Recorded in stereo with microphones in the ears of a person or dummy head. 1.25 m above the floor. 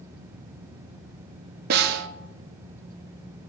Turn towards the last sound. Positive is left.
turn(degrees=-55)  # may be behind; listen again after turning